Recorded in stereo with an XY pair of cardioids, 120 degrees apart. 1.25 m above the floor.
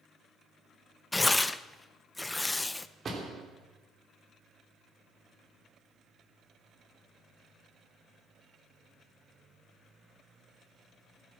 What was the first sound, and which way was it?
Tearing paper, 10° left.